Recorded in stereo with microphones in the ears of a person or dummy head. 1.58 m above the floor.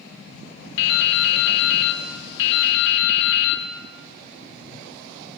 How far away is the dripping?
About 0.6 m.